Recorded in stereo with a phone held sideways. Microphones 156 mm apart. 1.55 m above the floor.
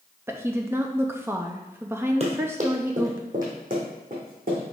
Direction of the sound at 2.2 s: 45° right (ahead or behind).